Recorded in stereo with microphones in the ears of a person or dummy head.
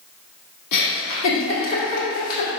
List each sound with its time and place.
0.7 s a giggle: 65° left (ahead or behind), 1.7 m